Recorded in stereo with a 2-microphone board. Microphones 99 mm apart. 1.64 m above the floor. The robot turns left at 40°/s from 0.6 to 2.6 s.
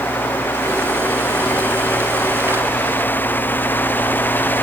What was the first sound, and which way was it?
Only background noise.